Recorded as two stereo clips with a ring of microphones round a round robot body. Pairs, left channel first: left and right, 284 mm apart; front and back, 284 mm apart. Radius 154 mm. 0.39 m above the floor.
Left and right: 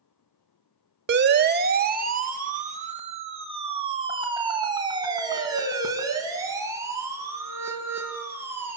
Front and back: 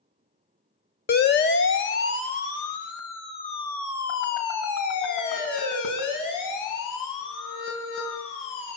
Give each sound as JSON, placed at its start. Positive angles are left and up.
{"t": 1.1, "sound": "a siren", "azimuth_deg": -50, "distance_m": 2.0}